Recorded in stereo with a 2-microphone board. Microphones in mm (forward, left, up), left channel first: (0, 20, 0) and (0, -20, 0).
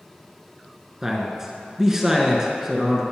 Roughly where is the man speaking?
Centre.